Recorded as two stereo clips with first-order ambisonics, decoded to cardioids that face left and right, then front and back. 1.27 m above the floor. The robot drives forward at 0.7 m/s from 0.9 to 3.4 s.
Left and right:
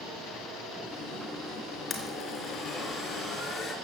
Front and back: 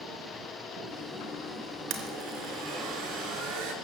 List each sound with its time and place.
1.9 s a blender: 155° left, 3.5 m; by 3.7 s 160° left, 4.5 m